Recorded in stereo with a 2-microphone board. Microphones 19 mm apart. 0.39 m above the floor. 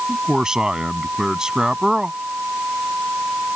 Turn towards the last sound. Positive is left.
turn(degrees=-40)  # may be behind; listen again after turning